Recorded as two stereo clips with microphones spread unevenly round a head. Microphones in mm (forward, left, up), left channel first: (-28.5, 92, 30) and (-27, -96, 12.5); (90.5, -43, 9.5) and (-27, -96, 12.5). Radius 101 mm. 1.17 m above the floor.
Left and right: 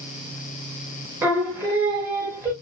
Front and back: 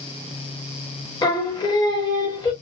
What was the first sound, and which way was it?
Singing, 10° right.